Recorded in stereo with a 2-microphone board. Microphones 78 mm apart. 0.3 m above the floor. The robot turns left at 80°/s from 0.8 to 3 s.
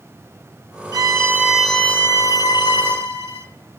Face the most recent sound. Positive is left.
turn(degrees=65)